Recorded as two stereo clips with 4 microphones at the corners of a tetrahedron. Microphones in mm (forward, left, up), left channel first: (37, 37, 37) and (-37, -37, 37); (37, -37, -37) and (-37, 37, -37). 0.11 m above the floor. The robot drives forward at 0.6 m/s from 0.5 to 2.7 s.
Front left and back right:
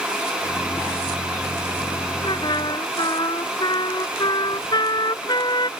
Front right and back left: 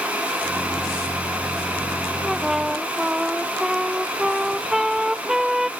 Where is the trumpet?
45° left; by 5.7 s 55° left.